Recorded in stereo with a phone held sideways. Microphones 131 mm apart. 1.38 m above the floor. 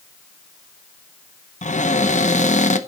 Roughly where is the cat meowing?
No cat meowing in this recording.